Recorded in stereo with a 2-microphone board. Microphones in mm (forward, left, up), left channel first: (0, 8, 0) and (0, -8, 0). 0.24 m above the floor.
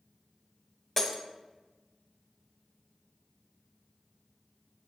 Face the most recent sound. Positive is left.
turn(degrees=10)  # may be behind; listen again after turning